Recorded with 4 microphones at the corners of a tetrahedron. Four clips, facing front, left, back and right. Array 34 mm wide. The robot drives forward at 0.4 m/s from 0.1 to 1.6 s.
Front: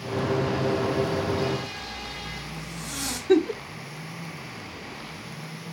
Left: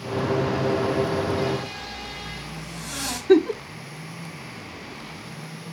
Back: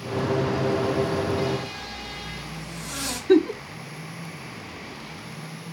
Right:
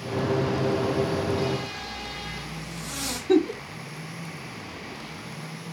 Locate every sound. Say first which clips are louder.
1.8 s a zipper: even, even; 115° left, 3.5 m
3.3 s a giggle: left 4 dB, back 2 dB; 120° left, 0.5 m